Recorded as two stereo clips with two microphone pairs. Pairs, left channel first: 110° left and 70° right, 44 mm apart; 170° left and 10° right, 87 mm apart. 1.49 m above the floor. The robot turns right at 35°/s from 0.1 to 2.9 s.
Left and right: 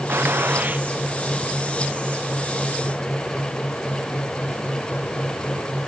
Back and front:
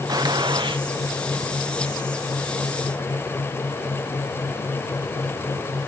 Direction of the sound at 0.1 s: 45° right.